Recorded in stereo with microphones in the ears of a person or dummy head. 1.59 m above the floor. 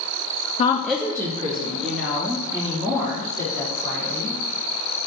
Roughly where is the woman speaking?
Left.